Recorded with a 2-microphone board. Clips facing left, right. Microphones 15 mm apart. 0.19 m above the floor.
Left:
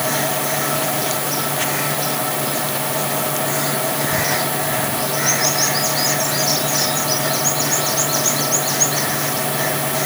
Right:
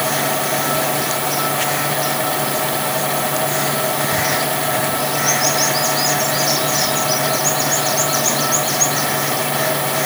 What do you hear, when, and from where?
Only background noise.